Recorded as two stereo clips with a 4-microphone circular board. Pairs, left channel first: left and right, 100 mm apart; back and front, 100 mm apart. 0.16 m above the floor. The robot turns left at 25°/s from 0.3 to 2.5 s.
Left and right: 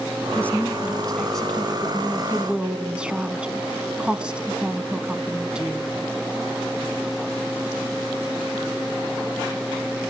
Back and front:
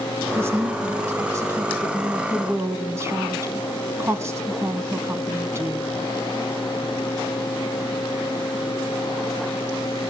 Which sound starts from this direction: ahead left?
A woman speaking, at 0.3 s.